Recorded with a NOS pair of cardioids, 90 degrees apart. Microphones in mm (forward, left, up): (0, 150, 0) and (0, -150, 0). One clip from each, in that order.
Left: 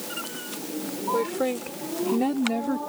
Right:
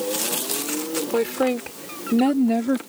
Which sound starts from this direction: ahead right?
A woman speaking, at 1.1 s.